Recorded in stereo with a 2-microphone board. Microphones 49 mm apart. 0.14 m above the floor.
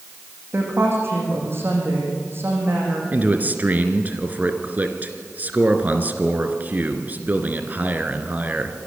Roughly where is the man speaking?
Right.